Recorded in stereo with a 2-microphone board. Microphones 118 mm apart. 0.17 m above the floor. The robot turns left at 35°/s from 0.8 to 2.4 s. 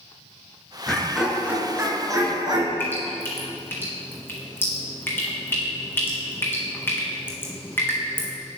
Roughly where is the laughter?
Ahead.